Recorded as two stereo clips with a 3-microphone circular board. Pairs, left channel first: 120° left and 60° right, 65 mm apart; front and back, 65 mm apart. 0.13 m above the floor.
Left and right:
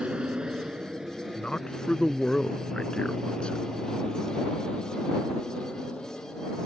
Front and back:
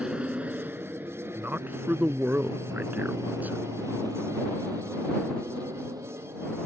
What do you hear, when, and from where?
0.0 s an aircraft: 115° right; by 6.7 s 170° right
1.4 s a man speaking: 175° left